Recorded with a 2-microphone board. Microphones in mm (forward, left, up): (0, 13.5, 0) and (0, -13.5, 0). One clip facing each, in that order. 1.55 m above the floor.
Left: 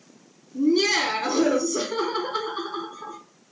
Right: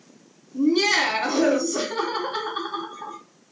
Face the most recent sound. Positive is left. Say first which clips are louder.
# right 1 dB
turn(degrees=-60)  # may be behind; listen again after turning